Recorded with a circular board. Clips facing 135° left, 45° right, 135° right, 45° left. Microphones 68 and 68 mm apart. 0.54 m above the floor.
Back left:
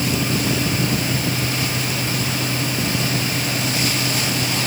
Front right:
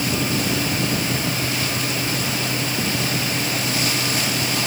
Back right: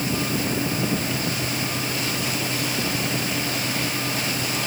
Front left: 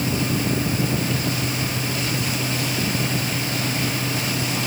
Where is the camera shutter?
No camera shutter in this recording.